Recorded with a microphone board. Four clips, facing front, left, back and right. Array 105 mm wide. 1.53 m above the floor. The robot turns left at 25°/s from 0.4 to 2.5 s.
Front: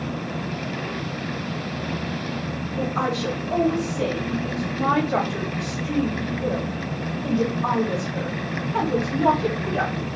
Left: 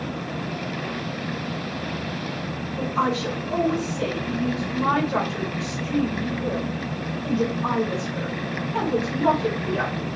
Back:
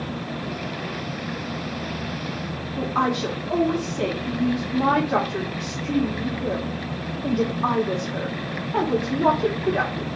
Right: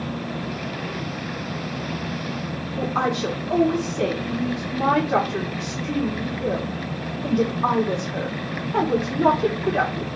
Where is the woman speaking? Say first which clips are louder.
Right 1 dB, back 2 dB; 135° right, 1.5 m.